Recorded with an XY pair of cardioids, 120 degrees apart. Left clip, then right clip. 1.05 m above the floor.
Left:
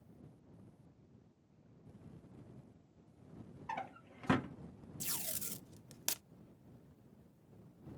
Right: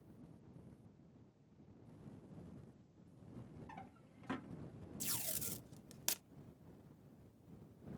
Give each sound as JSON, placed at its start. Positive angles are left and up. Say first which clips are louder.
{"t": 3.7, "sound": "a drawer", "louder": "left 15 dB", "azimuth_deg": 70}
{"t": 5.0, "sound": "tape being pulled", "louder": "left 1 dB", "azimuth_deg": 10}